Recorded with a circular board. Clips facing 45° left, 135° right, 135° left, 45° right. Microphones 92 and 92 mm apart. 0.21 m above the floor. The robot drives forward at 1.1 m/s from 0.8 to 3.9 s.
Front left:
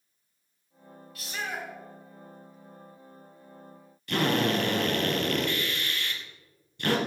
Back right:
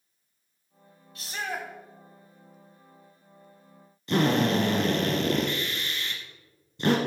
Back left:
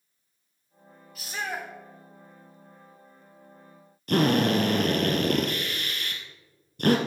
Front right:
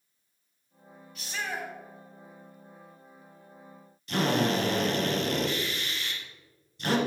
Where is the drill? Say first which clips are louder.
Back right 3 dB, back left 4 dB; 165° left, 1.9 m.